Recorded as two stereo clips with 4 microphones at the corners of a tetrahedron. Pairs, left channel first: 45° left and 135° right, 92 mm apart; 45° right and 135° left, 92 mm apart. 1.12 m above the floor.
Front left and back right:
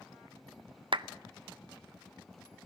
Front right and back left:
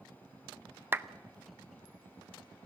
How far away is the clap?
About 0.6 m.